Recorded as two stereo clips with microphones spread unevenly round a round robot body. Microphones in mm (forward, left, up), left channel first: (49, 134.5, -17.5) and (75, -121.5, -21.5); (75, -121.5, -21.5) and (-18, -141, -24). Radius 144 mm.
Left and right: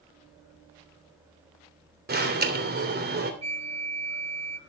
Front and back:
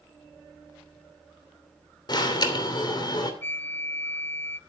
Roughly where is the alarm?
Ahead right.